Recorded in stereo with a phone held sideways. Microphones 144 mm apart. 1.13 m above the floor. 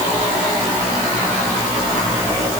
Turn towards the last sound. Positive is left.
No sound to turn to.